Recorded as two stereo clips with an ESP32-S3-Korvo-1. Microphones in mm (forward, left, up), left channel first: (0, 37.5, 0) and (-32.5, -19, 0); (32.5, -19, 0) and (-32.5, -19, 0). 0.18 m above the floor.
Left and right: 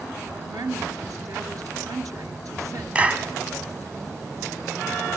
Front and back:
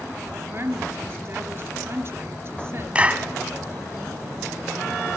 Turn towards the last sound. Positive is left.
turn(degrees=-150)